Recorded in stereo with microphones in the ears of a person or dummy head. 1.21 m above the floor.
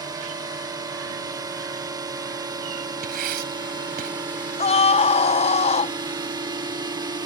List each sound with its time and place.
0.0 s a drone: 15° right (ahead or behind); by 7.2 s 20° right (ahead or behind)
3.0 s writing: 55° right (ahead or behind)
4.6 s a scream: 30° left (ahead or behind)